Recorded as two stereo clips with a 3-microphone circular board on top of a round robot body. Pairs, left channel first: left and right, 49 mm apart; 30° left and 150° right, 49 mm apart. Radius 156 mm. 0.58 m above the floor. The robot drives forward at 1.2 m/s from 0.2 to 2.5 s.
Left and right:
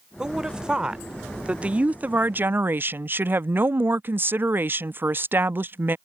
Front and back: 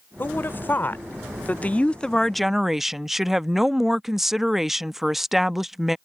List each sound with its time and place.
0.2 s a woman speaking: 10° right; by 6.0 s 65° right